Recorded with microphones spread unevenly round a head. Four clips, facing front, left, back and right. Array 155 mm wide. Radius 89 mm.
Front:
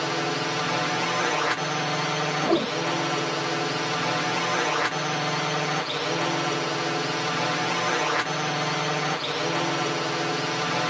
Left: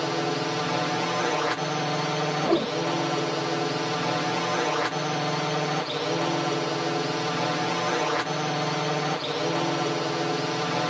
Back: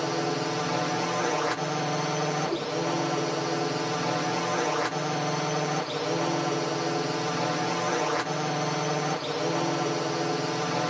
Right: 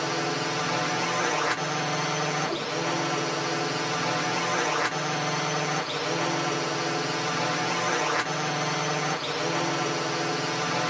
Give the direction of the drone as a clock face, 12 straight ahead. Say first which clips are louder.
Left 2 dB, front 1 dB; 8 o'clock.